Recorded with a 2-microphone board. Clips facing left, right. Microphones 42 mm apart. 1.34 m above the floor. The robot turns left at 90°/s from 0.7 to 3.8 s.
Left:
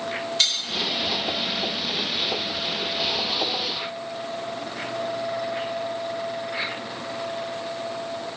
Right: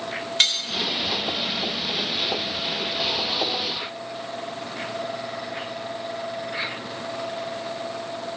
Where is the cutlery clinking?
40° right (ahead or behind), 1.9 m.